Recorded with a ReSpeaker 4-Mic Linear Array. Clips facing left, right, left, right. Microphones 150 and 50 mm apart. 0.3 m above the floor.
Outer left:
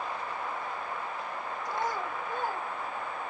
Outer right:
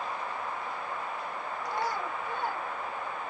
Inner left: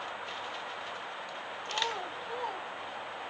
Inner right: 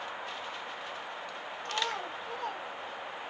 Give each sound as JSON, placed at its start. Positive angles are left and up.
{"t": 1.6, "sound": "a child speaking", "side_deg": -70, "distance_m": 4.5}